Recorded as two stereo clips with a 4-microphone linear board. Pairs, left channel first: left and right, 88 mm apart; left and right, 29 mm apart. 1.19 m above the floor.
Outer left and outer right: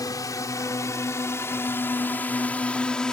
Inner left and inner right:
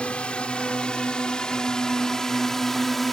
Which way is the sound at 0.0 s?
45° left (ahead or behind).